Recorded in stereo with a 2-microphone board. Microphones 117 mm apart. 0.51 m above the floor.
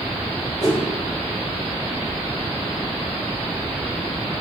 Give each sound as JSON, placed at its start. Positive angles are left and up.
{"t": 0.6, "sound": "a whoosh", "side_deg": 35, "distance_m": 2.5}